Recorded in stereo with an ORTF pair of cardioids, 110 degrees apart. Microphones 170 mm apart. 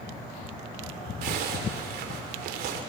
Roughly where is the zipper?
Right.